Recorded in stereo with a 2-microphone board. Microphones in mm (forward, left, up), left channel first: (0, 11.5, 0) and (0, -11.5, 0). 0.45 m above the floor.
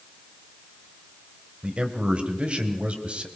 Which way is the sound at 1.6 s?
60° right (ahead or behind).